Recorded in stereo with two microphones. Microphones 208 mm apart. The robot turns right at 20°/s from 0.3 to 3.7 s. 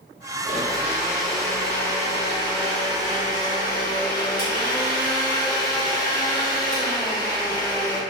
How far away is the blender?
About 1.0 m.